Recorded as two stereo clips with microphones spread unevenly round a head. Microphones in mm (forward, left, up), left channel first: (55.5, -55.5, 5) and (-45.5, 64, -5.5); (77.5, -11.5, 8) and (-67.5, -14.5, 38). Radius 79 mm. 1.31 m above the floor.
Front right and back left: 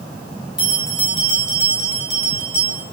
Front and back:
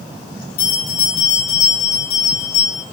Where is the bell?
45° left, 3 m.